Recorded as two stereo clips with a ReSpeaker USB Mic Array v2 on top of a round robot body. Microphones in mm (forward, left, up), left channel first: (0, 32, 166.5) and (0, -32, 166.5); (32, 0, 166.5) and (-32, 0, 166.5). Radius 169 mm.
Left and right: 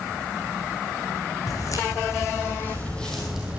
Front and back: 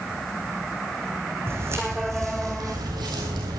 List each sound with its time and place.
1.5 s footsteps: 125° left, 3 m; by 3.6 s 160° right, 1.6 m